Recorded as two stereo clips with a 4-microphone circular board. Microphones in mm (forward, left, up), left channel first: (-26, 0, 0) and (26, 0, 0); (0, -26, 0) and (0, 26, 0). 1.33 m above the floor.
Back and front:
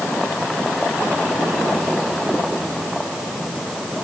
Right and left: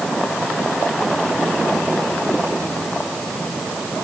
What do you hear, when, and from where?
Only background noise.